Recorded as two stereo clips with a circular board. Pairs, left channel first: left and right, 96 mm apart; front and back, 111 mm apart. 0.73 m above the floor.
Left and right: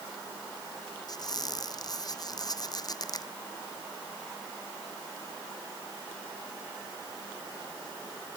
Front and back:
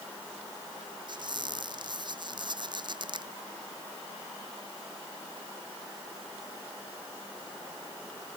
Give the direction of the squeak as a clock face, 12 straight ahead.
8 o'clock.